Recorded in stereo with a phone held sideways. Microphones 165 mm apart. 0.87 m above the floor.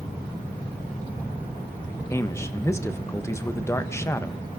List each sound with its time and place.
2.1 s a man speaking: 15° left (ahead or behind), 0.9 m